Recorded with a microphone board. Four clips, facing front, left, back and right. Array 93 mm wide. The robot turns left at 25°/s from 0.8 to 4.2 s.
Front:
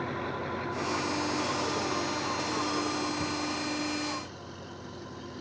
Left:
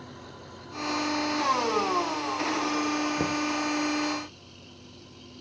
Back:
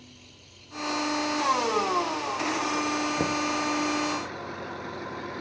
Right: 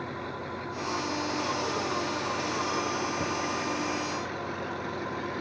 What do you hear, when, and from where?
0.0 s an engine running: 35° right; by 5.4 s 120° right
3.2 s knocking: 155° left; by 3.4 s 145° left